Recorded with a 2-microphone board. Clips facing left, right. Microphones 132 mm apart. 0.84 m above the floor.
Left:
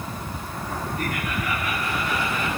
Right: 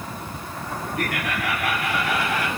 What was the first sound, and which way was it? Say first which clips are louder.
Laughter: right 4 dB; 80° right.